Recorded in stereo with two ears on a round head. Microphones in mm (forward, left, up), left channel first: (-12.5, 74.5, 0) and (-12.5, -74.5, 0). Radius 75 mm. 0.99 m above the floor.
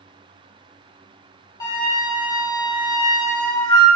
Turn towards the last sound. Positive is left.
turn(degrees=20)  # may be behind; listen again after turning